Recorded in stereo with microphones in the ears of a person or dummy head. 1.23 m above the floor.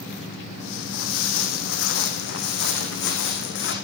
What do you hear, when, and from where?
0.6 s footsteps: 65° left (ahead or behind), 4 m; by 3.7 s 70° left (ahead or behind), 6.5 m